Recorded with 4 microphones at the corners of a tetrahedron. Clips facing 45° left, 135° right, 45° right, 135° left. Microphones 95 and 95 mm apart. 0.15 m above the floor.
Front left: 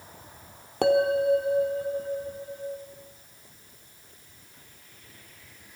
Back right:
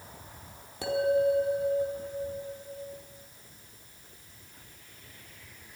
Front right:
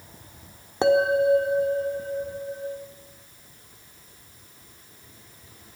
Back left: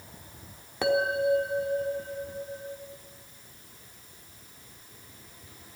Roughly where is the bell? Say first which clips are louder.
Front left 4 dB, front right 6 dB; ahead.